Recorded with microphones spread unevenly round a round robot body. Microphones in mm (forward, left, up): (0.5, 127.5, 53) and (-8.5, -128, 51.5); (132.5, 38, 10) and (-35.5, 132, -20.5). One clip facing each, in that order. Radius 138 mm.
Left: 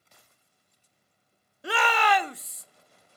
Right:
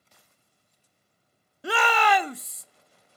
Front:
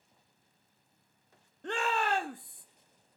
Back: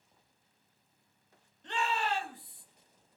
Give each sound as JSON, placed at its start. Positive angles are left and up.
{"t": 1.6, "sound": "a shout", "azimuth_deg": -95, "distance_m": 0.7}